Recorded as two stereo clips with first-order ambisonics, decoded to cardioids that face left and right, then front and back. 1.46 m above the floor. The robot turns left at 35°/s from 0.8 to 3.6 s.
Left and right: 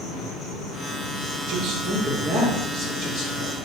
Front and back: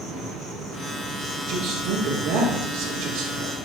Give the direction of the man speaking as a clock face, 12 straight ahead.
5 o'clock.